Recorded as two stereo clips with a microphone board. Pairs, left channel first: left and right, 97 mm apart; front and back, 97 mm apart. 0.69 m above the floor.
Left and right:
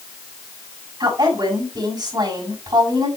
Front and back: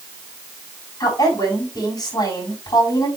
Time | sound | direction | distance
1.0 | a woman speaking | 45° right | 6 m